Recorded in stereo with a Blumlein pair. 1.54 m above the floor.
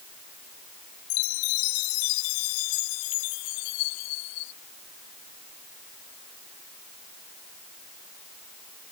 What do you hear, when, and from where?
1.1 s a chime: 45° left